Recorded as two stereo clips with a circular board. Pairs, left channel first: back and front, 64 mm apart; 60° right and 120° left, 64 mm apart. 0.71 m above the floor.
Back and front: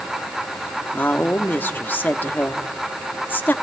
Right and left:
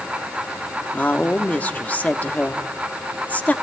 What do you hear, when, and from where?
0.9 s a woman speaking: 125° right, 1.0 m